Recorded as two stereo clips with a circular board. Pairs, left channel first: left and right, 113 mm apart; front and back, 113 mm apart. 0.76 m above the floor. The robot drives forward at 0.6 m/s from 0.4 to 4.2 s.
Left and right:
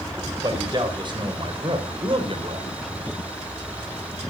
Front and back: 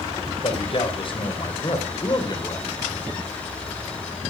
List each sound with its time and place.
0.4 s a man speaking: 40° right, 4 m; by 2.7 s 55° right, 3 m